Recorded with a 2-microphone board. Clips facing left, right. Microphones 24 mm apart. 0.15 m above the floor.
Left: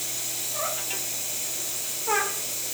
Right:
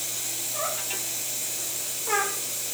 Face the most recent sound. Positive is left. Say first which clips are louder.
# even
turn(degrees=15)  # may be behind; listen again after turning